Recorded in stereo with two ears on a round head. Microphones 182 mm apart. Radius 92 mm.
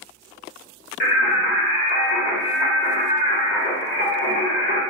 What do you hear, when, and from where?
1.0 s singing: 45° left (ahead or behind), 1.4 m